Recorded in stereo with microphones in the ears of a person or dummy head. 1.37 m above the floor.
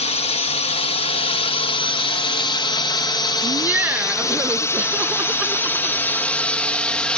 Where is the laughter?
10° right (ahead or behind).